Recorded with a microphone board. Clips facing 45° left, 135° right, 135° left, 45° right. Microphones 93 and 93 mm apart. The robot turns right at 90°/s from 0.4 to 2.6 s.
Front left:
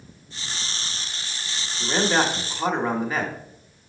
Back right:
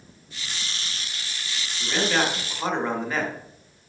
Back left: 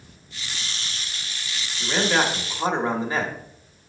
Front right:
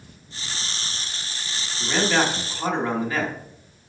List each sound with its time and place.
1.8 s a man speaking: 55° left, 1.1 m; by 3.3 s 125° left, 1.1 m